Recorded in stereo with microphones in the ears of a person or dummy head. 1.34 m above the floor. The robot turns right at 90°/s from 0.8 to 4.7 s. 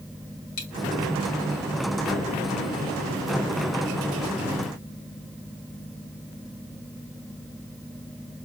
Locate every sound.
0.6 s a dropped coin: 60° left (ahead or behind), 2.5 m